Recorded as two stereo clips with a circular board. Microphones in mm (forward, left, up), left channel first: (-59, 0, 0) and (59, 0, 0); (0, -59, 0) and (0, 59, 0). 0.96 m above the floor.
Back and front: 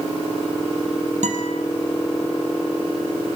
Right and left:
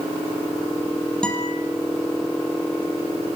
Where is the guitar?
10° right, 4 m.